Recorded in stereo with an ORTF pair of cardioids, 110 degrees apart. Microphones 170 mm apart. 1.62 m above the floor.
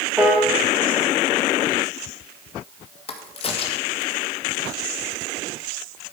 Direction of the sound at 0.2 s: 5° right.